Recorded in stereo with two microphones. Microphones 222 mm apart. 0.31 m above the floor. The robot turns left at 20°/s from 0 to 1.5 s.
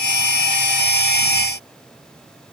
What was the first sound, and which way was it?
Only background noise.